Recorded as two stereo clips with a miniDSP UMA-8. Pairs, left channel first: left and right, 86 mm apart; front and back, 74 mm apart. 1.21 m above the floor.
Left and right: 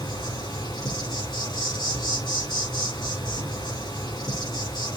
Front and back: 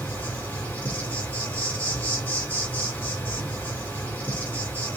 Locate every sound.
0.0 s an insect: 70° left, 4.5 m